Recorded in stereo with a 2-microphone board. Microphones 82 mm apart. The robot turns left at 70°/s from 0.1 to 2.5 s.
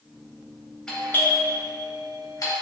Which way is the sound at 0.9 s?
10° left (ahead or behind).